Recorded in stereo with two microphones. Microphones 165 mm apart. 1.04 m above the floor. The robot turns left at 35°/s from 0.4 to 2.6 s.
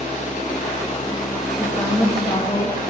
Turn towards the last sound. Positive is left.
turn(degrees=145)